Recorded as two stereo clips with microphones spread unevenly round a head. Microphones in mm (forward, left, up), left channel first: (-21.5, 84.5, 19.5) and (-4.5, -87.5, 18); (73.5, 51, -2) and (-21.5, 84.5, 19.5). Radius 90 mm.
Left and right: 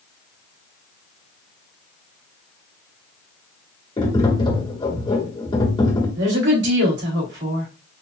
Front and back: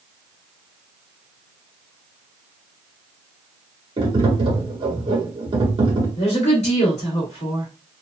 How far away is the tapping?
About 1.5 m.